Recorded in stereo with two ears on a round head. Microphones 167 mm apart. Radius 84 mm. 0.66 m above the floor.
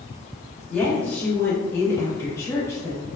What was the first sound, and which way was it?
A woman speaking, 5° left (ahead or behind).